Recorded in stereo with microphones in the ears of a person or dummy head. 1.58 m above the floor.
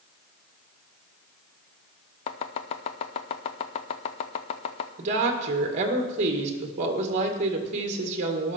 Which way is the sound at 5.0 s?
40° right (ahead or behind).